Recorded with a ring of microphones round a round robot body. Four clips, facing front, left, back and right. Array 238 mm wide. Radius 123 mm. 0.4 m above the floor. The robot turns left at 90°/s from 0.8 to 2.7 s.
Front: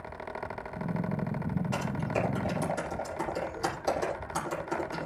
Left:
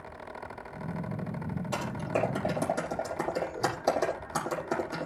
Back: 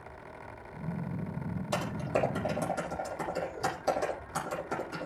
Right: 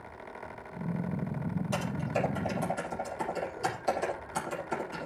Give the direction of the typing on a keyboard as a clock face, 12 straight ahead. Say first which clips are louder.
Left 2 dB, back 3 dB; 6 o'clock.